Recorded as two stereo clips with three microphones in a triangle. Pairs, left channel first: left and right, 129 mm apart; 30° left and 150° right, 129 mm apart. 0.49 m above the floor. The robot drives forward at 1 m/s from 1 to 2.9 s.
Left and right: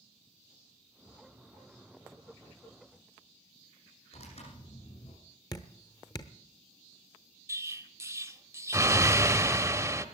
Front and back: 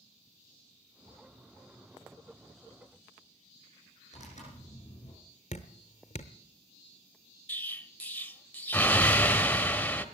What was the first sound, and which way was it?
Tearing paper, 60° left.